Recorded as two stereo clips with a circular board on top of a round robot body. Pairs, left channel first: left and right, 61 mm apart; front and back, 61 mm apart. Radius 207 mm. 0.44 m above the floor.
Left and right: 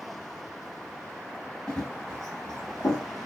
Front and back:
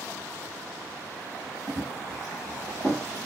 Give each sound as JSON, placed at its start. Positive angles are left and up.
{"t": 1.7, "sound": "running footsteps", "azimuth_deg": 165, "distance_m": 0.7}